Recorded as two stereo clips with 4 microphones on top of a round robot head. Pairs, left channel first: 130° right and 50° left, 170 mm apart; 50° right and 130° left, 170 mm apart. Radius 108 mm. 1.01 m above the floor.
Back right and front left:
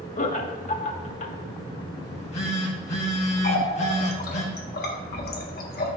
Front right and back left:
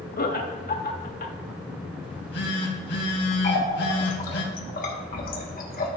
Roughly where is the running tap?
Right.